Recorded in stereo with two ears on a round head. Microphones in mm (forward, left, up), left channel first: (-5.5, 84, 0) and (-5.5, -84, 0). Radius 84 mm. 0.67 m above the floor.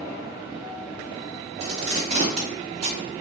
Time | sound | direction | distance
1.6 | tape being pulled | 30° right (ahead or behind) | 1.9 m